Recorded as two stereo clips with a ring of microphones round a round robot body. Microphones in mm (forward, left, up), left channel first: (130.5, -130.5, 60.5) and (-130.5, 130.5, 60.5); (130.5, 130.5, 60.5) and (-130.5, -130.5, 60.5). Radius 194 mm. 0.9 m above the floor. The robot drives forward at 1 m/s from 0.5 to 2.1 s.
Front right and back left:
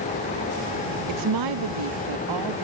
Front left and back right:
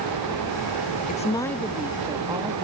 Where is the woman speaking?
110° left; by 2.6 s 145° left.